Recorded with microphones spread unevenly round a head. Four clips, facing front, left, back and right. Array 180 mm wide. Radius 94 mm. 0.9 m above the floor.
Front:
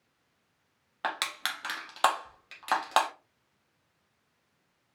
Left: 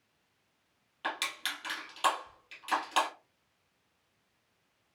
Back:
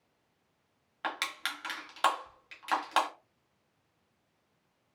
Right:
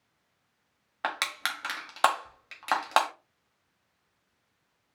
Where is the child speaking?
No child speaking in this recording.